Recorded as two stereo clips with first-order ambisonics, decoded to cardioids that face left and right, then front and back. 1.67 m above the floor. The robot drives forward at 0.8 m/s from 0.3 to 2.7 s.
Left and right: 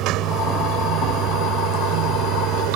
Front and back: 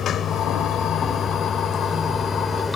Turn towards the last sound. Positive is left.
turn(degrees=-80)